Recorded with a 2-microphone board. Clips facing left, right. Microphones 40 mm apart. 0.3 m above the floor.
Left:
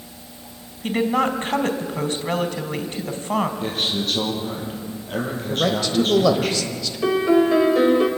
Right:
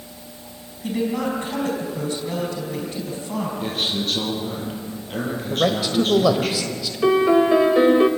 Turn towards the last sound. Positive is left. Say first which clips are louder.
# right 1 dB
turn(degrees=-15)  # may be behind; listen again after turning